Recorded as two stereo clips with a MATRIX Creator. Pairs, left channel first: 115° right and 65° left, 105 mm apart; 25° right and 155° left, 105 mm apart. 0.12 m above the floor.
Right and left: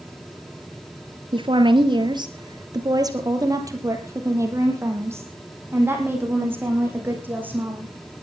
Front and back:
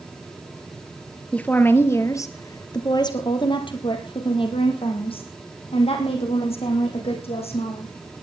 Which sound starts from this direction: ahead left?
A woman speaking, at 1.3 s.